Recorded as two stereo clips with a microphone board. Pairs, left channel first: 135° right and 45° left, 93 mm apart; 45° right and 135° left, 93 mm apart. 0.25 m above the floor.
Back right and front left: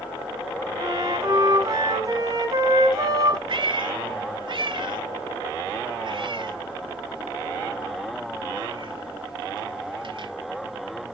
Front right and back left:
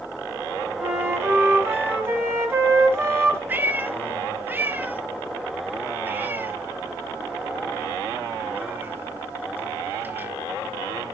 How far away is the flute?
About 1.6 m.